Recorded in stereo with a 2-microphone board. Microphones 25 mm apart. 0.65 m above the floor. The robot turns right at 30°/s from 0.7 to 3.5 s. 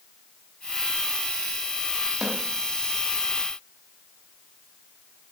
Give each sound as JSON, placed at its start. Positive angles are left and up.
{"t": 2.2, "sound": "a snare drum", "side_deg": -10, "distance_m": 4.0}